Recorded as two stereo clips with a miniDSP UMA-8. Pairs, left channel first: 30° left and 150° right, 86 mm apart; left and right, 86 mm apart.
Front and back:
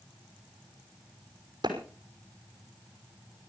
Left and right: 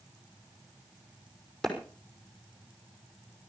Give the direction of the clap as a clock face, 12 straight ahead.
6 o'clock.